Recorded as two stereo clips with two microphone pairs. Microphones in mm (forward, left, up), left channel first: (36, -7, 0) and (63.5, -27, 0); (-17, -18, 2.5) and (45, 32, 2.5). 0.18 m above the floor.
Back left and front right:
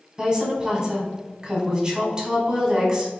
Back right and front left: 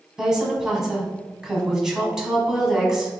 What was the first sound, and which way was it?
A woman speaking, 35° right.